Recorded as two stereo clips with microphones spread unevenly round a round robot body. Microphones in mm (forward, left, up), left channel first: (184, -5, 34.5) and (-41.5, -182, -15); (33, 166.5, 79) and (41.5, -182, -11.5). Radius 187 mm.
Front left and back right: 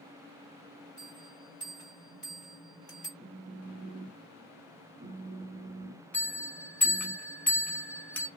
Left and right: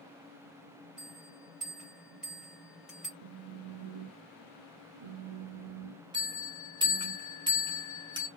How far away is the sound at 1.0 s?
About 2 m.